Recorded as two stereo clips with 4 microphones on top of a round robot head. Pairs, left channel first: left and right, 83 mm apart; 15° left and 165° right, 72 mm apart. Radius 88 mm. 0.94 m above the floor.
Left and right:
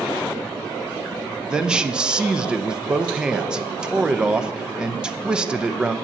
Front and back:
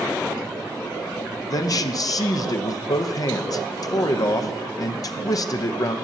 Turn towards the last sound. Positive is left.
turn(degrees=-10)